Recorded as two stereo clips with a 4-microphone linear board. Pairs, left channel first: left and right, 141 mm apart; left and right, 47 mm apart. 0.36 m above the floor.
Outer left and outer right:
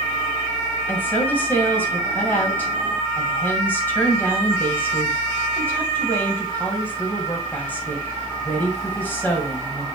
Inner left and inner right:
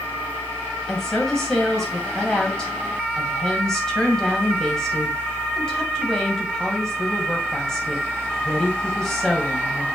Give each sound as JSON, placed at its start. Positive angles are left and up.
{"t": 0.9, "sound": "a woman speaking", "side_deg": 15, "distance_m": 2.5}